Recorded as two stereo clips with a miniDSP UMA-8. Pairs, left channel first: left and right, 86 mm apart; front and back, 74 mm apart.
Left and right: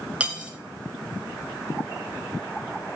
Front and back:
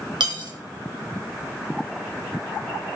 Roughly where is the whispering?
I don't hear whispering.